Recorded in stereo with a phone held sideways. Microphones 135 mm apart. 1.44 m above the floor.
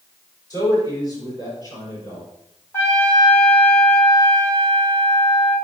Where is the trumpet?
15° left (ahead or behind), 3 m.